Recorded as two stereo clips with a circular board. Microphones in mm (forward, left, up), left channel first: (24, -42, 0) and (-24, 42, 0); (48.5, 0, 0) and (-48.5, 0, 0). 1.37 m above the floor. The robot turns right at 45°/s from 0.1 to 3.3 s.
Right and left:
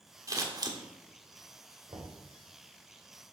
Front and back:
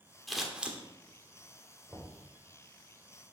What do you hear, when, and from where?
0.3 s scissors: 85° left, 1.2 m; by 0.8 s 110° left, 1.2 m
1.9 s knocking: 85° left, 3.5 m; by 2.1 s 95° left, 3.5 m